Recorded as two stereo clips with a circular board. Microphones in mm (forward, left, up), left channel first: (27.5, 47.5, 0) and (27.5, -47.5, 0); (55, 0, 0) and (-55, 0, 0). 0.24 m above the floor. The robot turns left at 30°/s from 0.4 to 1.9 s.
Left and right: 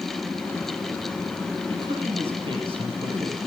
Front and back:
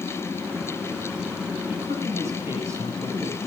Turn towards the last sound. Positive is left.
turn(degrees=-115)